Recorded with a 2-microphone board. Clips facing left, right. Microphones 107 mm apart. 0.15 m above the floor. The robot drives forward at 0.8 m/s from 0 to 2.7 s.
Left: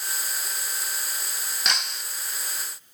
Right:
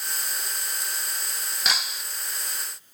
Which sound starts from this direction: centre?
Breaking glass, at 1.6 s.